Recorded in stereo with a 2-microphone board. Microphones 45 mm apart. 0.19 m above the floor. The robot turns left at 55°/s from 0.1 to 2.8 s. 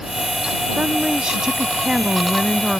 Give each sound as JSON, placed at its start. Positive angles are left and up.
{"t": 0.8, "sound": "a woman speaking", "side_deg": -20}